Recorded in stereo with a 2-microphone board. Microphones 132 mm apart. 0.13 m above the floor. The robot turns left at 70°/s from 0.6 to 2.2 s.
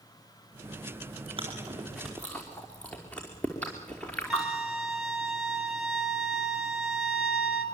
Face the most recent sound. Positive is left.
turn(degrees=-5)  # may be behind; listen again after turning